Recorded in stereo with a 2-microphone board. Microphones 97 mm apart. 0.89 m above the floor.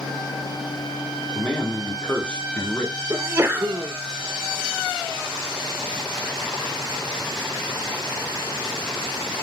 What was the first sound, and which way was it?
A man speaking, 10° left (ahead or behind).